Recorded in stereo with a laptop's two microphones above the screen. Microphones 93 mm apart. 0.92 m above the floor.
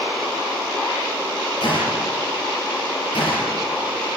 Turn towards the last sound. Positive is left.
turn(degrees=75)  # may be behind; listen again after turning